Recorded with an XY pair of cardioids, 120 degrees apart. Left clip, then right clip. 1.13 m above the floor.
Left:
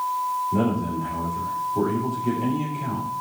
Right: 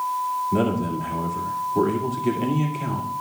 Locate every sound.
0.5 s a man speaking: 40° right, 1.9 m